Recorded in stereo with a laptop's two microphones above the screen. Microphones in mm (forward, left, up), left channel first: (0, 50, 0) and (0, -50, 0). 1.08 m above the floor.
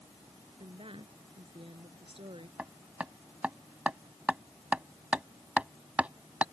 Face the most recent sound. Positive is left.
turn(degrees=-15)  # may be behind; listen again after turning